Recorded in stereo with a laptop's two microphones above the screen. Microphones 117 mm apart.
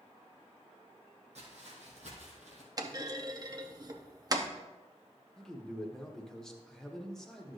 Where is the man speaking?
5° left (ahead or behind), 0.9 m.